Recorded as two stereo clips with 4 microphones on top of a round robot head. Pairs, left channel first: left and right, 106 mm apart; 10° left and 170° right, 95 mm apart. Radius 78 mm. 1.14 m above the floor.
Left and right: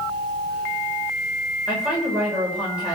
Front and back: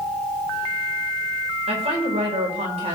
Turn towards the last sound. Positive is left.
turn(degrees=-170)